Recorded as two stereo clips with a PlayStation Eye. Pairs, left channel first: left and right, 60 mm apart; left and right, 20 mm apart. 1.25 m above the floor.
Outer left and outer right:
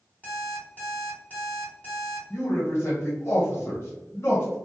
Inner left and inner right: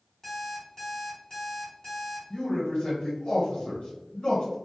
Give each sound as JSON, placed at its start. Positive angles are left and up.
{"t": 0.2, "sound": "an alarm clock", "side_deg": 25, "distance_m": 1.4}
{"t": 2.3, "sound": "a man speaking", "side_deg": 45, "distance_m": 1.0}